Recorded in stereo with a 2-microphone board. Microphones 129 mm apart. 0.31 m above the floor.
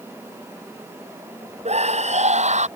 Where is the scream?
60° right (ahead or behind).